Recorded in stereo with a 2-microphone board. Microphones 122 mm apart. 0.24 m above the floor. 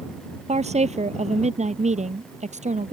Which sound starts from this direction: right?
A woman speaking, at 0.5 s.